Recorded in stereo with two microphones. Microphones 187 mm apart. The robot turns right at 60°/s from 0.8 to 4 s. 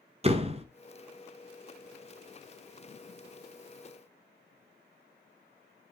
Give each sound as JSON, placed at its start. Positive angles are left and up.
{"t": 0.2, "sound": "a door slam", "side_deg": -35, "distance_m": 0.8}